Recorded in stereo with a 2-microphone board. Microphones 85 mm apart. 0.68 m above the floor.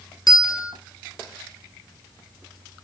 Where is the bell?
50° left (ahead or behind), 1.7 m.